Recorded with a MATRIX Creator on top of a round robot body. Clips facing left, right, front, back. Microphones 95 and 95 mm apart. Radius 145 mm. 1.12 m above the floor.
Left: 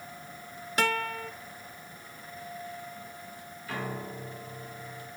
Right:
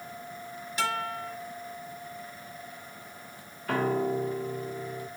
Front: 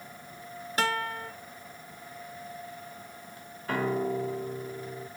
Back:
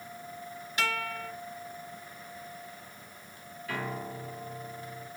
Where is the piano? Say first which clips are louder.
Right 10 dB, front 8 dB; 55° right, 0.8 m.